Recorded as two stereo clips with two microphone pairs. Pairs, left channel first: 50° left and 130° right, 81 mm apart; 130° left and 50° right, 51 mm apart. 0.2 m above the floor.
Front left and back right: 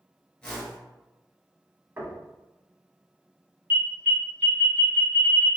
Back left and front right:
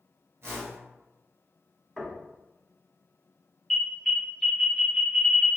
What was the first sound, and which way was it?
A whoosh, 30° right.